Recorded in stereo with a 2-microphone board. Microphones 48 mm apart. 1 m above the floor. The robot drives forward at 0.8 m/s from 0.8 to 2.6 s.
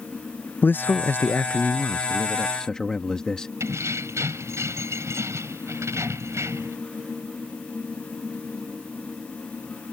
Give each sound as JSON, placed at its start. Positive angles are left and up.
{"t": 0.6, "sound": "a man speaking", "side_deg": 40}
{"t": 3.6, "sound": "keys jangling", "side_deg": -70}